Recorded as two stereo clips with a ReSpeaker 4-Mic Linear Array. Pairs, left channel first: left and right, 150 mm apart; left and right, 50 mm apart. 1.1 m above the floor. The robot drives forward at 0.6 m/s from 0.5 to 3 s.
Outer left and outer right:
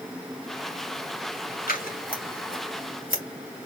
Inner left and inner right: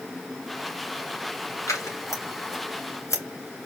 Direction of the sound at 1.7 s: 80° left.